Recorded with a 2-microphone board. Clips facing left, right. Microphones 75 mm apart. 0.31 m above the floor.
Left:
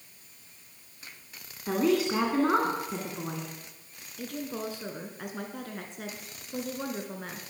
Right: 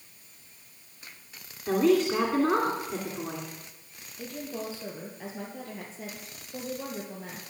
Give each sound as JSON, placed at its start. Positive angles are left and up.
{"t": 1.7, "sound": "a woman speaking", "side_deg": 10, "distance_m": 2.5}
{"t": 4.2, "sound": "a woman speaking", "side_deg": 65, "distance_m": 3.0}